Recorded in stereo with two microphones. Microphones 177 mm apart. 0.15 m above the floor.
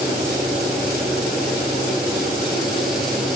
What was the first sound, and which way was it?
Only background noise.